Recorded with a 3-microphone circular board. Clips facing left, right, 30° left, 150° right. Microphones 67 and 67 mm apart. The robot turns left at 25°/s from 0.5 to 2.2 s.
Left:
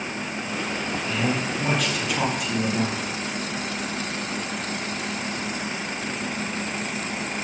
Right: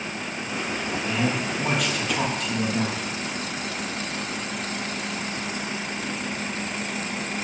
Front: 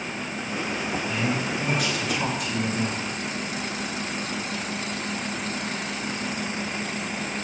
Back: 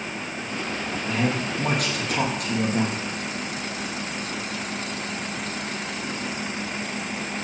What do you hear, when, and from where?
1.1 s a man speaking: 160° right, 4 m; by 3.0 s 170° left, 4 m